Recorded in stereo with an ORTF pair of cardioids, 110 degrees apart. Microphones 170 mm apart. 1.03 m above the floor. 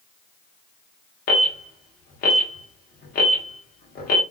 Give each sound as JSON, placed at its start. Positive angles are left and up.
{"t": 1.3, "sound": "an alarm", "azimuth_deg": 60, "distance_m": 1.0}